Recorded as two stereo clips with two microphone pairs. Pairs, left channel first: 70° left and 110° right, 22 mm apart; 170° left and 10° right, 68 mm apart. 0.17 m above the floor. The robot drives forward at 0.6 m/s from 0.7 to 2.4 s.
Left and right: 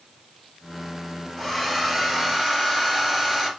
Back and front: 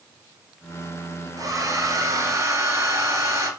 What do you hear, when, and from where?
1.4 s a hair dryer: 35° right, 3 m; by 3.5 s 45° right, 2.5 m